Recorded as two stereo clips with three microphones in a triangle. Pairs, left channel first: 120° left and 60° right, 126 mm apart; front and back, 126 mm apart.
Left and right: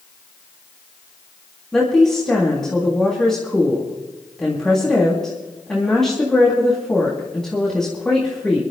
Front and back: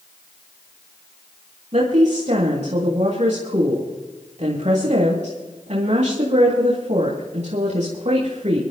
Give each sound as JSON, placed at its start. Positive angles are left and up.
{"t": 1.7, "sound": "a woman speaking", "azimuth_deg": -155, "distance_m": 3.0}